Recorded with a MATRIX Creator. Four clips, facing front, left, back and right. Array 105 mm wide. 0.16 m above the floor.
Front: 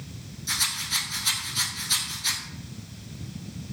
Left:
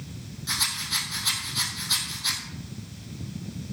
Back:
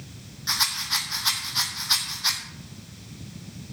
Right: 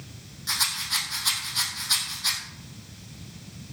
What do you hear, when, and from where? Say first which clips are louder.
0.5 s a rattle: right 2 dB, back 4 dB; 175° right, 2.5 m